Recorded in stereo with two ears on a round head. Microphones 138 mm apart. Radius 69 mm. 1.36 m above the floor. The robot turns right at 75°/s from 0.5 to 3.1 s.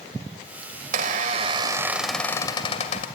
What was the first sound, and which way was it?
A squeak, 85° right.